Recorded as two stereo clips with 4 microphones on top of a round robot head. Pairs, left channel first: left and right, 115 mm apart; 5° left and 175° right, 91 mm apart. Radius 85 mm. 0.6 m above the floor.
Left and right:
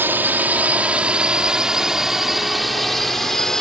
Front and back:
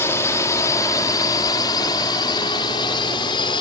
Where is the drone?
30° right; by 3.6 s 5° left.